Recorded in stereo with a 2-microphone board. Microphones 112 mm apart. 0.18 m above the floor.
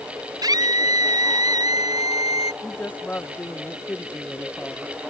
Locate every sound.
0.4 s a scream: 35° right (ahead or behind)
2.6 s a woman speaking: 15° left (ahead or behind)